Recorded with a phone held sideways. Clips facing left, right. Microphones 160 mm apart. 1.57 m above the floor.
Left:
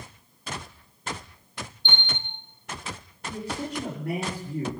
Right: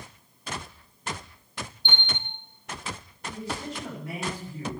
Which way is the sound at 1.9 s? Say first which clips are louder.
Left 2 dB; 50° right (ahead or behind).